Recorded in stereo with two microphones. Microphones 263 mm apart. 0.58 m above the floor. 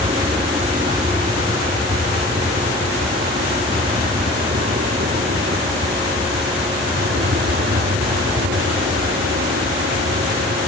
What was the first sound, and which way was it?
An aircraft, 20° right (ahead or behind).